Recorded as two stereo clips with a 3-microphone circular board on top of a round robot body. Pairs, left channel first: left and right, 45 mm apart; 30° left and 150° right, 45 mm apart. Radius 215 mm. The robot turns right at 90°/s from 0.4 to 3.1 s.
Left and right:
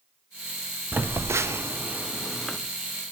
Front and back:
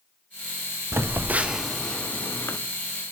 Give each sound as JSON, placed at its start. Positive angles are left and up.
{"t": 0.9, "sound": "a phone buzzing", "azimuth_deg": -130, "distance_m": 0.6}